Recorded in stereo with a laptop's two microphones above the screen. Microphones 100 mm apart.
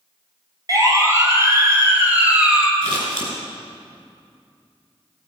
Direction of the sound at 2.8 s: 60° right (ahead or behind).